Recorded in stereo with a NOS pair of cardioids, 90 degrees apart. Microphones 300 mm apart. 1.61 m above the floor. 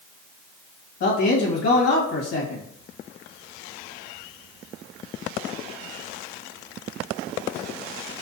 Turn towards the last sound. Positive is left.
turn(degrees=60)